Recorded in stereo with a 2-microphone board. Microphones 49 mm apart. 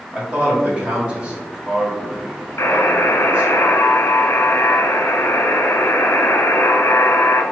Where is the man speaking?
25° right (ahead or behind), 1.6 m.